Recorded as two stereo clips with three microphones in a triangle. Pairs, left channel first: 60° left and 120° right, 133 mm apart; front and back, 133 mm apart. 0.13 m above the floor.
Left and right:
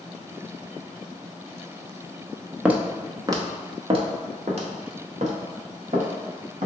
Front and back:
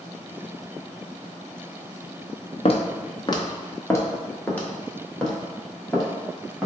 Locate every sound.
2.6 s footsteps: 40° right, 0.9 m; by 6.7 s 90° right, 2.5 m